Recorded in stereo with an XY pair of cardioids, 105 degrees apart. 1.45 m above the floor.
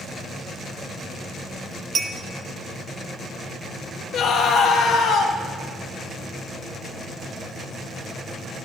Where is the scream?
70° left, 1.6 m.